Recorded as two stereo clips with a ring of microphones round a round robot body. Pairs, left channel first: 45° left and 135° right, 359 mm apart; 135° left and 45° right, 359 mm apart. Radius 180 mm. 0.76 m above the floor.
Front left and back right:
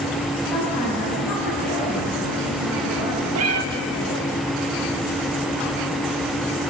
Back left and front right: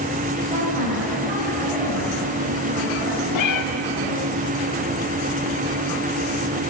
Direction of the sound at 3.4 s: 175° left.